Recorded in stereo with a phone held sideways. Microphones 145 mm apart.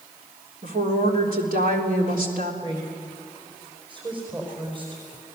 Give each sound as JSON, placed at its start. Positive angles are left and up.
{"t": 0.6, "sound": "a woman speaking", "side_deg": -75, "distance_m": 3.5}
{"t": 2.6, "sound": "a woman speaking", "side_deg": -35, "distance_m": 4.5}